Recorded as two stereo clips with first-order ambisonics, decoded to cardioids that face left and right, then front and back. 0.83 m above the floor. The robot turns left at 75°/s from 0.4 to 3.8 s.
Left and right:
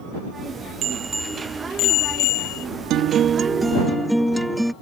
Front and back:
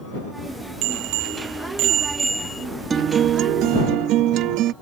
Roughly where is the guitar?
Behind right.